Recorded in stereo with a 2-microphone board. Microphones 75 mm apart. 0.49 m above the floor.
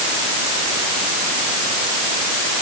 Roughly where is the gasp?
I don't hear a gasp.